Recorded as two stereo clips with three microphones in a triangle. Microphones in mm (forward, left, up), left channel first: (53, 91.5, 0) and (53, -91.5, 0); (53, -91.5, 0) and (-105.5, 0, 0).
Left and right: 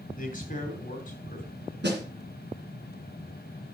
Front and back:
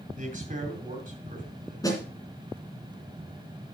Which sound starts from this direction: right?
A snare drum, at 1.8 s.